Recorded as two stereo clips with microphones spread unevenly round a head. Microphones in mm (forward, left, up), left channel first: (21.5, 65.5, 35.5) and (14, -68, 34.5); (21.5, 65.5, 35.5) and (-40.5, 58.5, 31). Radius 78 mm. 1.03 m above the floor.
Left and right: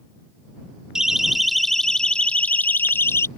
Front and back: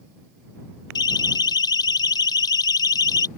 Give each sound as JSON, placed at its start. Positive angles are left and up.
{"t": 0.9, "sound": "a siren", "azimuth_deg": -10}